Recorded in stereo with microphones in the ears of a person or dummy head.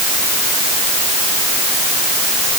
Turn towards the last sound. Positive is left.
No sound to turn to.